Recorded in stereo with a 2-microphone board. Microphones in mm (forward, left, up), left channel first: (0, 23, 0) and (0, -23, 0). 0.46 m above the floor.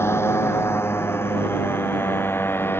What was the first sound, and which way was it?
A motorcycle, 85° left.